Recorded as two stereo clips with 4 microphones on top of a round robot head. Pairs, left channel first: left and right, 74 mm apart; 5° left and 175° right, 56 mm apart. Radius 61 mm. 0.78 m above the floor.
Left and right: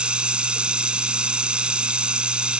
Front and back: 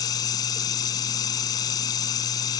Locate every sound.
0.0 s running water: 15° right